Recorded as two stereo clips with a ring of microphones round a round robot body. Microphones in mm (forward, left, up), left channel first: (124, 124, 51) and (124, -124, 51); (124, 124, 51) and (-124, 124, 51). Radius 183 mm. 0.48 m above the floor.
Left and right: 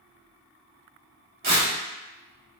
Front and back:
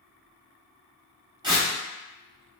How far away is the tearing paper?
About 0.9 m.